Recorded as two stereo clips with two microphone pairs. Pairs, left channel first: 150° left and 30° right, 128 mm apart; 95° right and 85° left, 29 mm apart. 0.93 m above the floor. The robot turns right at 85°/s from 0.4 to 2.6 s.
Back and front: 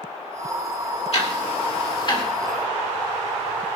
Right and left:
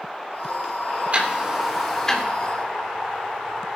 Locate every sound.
1.1 s ticking: 115° left, 2.5 m; by 2.2 s 150° right, 2.5 m